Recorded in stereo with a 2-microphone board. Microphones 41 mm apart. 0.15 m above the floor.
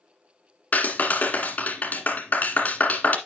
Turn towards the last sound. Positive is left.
turn(degrees=40)  # may be behind; listen again after turning